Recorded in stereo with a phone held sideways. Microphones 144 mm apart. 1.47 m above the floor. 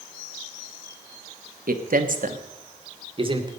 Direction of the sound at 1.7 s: 80° right.